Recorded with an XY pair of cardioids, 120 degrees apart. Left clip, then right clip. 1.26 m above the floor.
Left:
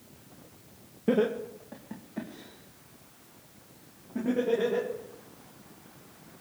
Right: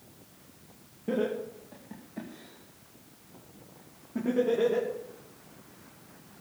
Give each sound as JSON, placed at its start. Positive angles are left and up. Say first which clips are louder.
{"t": 1.1, "sound": "laughter", "louder": "left 4 dB", "azimuth_deg": 45, "distance_m": 1.6}